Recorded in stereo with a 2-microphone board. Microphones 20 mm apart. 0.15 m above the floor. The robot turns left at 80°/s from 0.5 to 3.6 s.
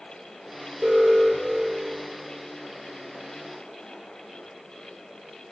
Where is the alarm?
105° right, 1.7 m; by 2.0 s 160° left, 1.7 m.